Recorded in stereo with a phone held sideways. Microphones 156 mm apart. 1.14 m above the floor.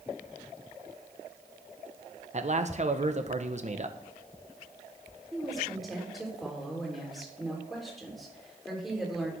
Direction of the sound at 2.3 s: 50° right (ahead or behind).